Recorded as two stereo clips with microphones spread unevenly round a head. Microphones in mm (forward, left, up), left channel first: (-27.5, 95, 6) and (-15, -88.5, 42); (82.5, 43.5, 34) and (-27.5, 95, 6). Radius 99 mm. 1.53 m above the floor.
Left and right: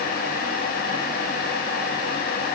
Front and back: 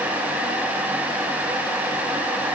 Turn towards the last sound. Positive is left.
No sound to turn to.